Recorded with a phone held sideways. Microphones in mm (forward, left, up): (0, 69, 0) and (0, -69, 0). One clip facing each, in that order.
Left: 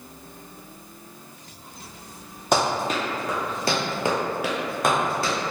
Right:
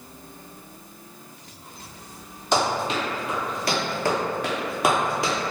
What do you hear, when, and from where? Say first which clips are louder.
2.5 s running footsteps: left 1 dB; 50° left (ahead or behind), 1.3 m; by 5.3 s 20° right (ahead or behind), 1.0 m